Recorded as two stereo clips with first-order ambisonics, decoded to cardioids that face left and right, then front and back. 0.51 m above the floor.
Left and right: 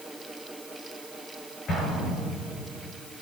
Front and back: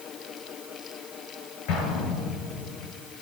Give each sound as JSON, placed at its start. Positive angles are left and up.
{"t": 1.7, "sound": "an explosion", "azimuth_deg": 25, "distance_m": 5.0}